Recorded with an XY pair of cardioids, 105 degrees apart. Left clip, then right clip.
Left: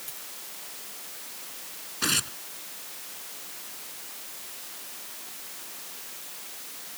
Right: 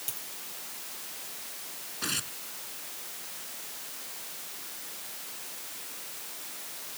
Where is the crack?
I don't hear a crack.